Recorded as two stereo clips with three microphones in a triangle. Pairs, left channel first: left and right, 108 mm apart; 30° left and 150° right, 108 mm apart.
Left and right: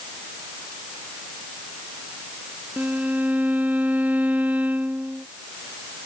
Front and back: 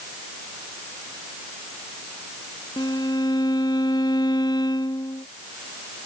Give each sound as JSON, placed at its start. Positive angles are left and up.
{"t": 2.8, "sound": "a violin", "azimuth_deg": -15}